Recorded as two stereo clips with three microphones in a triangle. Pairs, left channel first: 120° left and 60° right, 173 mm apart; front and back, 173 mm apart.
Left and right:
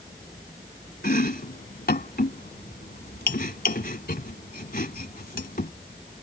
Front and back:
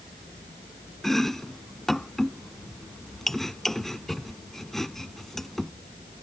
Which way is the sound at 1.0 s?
90° left.